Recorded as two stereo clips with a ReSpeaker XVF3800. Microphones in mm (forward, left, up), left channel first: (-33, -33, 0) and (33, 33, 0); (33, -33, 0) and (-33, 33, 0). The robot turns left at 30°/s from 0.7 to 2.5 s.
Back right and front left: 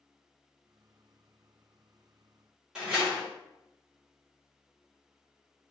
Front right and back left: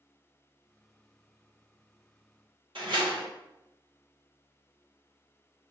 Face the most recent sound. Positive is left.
turn(degrees=130)